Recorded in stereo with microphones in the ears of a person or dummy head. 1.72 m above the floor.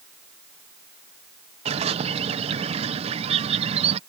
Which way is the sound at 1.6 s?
35° right (ahead or behind).